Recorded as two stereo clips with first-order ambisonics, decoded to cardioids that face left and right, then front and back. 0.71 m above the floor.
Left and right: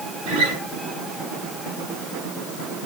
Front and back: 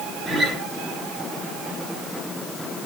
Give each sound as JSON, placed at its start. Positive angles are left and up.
{"t": 0.3, "sound": "a guitar", "azimuth_deg": -100, "distance_m": 7.0}